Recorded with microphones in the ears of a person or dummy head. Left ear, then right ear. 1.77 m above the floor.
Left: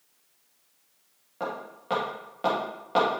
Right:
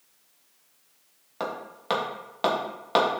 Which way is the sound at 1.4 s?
40° right (ahead or behind).